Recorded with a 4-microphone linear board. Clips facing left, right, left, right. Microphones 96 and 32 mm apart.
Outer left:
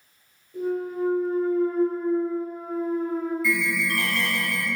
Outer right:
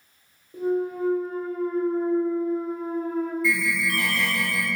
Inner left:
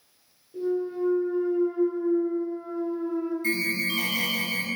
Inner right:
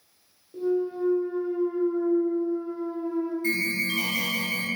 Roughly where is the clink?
No clink in this recording.